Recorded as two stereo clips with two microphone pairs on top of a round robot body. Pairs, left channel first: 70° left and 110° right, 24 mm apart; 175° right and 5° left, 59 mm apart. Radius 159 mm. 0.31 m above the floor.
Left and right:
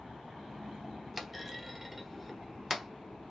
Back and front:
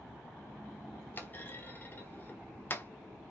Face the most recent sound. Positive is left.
turn(degrees=170)